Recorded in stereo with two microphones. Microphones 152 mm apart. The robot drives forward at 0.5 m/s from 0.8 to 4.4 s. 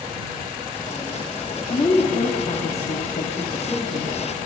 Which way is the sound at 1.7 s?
35° left (ahead or behind).